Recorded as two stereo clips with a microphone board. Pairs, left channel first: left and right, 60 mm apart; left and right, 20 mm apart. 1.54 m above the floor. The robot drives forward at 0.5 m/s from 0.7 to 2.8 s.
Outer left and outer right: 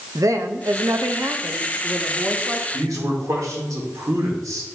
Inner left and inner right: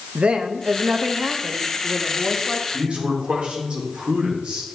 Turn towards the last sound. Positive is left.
turn(degrees=-75)  # may be behind; listen again after turning